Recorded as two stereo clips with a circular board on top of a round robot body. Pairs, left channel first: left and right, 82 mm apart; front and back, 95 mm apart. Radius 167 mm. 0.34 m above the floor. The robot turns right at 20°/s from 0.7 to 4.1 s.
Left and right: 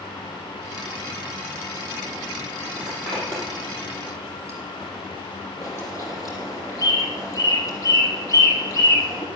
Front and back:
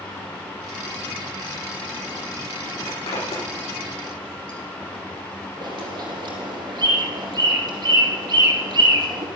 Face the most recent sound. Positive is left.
turn(degrees=135)